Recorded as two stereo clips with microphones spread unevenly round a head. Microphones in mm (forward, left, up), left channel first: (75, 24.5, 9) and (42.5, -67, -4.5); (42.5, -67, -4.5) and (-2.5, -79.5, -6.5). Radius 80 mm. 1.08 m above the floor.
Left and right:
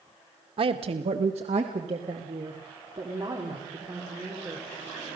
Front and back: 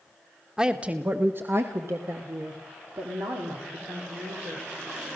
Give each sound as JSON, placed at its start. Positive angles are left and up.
{"t": 0.6, "sound": "a woman speaking", "azimuth_deg": -90, "distance_m": 1.4}